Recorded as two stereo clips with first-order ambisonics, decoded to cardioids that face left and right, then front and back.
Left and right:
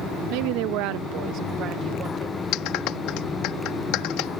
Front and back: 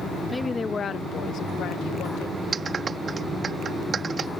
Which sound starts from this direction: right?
A woman speaking, at 0.3 s.